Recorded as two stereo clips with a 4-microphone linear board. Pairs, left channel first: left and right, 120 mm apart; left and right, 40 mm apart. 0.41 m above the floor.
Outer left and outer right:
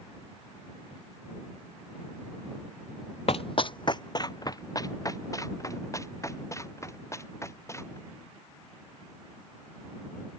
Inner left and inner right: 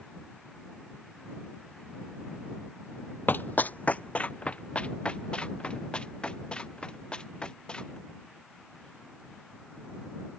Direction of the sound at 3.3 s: 50° left (ahead or behind).